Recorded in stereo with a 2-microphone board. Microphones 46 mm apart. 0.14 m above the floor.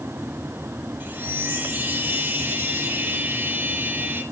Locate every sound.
1.0 s a chime: 40° right (ahead or behind), 2 m